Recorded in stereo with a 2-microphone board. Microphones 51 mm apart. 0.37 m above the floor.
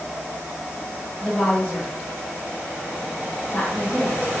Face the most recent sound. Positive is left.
turn(degrees=30)  # may be behind; listen again after turning